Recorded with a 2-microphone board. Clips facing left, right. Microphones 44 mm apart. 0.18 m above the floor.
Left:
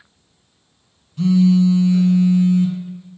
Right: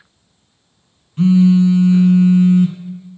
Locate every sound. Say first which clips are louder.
1.2 s a phone buzzing: right 3 dB; 40° right (ahead or behind), 0.7 m